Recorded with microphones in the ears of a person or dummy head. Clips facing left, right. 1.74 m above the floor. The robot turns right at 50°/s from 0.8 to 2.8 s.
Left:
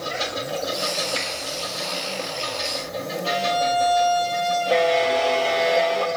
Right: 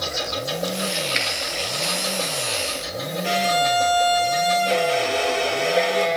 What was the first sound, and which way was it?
A finger snap, 30° right (ahead or behind).